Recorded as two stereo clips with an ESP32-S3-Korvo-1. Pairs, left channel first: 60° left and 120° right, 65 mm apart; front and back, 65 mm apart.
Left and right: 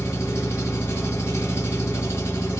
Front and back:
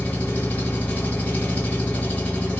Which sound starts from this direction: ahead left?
An engine running, at 0.0 s.